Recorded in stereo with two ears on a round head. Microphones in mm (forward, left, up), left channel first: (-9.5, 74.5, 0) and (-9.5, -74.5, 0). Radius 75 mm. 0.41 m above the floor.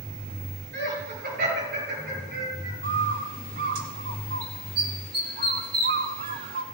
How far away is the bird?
About 2 m.